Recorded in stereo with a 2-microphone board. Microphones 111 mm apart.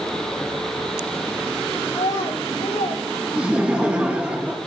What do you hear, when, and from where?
1.9 s a child speaking: 90° left, 3.5 m
3.4 s laughter: 10° right (ahead or behind), 2 m